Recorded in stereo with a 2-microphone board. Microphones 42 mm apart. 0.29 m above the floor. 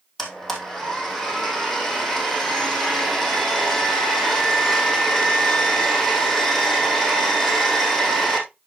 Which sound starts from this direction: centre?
A blender, at 0.2 s.